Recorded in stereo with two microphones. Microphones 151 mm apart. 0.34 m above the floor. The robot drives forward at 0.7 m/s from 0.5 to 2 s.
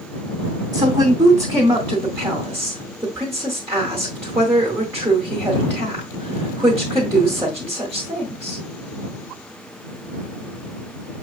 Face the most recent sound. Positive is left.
turn(degrees=-20)  # may be behind; listen again after turning